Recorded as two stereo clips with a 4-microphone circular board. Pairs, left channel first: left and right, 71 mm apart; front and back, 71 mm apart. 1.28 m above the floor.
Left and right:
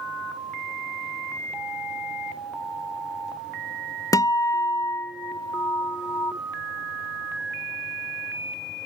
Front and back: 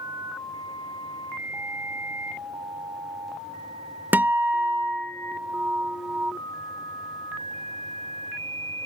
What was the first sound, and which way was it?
A guitar, 115° left.